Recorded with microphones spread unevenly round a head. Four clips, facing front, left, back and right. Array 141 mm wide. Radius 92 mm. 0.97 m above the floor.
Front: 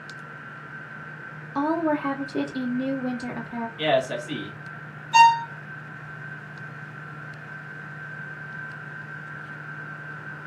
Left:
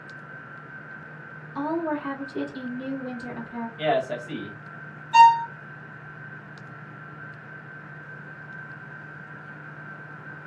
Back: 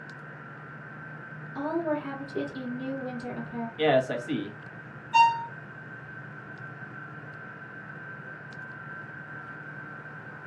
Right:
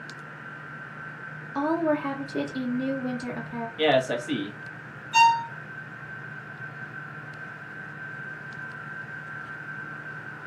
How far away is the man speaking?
About 1.0 m.